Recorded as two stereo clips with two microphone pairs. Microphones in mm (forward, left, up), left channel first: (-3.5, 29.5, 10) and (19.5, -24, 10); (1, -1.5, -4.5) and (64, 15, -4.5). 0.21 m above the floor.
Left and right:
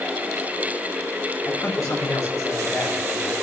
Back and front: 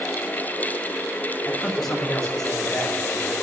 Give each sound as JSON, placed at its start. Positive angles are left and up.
{"t": 1.4, "sound": "a man speaking", "azimuth_deg": 105, "distance_m": 5.0}